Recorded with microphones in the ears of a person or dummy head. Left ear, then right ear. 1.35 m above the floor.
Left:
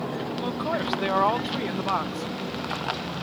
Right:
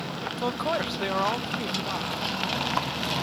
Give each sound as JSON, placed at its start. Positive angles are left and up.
{"t": 0.4, "sound": "a man speaking", "side_deg": -25}